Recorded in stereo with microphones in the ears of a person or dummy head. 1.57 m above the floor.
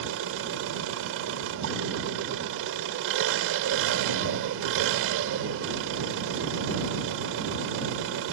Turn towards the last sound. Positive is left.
turn(degrees=-75)  # may be behind; listen again after turning